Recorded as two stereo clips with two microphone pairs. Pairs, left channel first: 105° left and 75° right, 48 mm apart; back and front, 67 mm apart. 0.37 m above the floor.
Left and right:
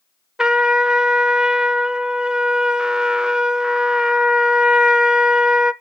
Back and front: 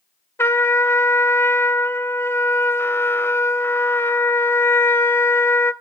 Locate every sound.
0.4 s a trumpet: 145° right, 0.6 m